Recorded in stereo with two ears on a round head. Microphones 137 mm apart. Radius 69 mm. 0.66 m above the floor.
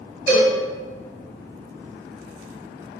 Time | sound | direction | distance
0.3 | a cowbell | 75° right (ahead or behind) | 1.9 m